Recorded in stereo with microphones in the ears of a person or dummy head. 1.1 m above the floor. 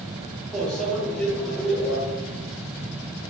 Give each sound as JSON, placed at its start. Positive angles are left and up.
{"t": 0.5, "sound": "a microwave", "side_deg": 5, "distance_m": 4.0}